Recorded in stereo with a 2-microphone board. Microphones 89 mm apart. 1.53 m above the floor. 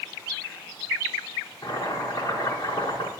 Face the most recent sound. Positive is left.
turn(degrees=45)  # may be behind; listen again after turning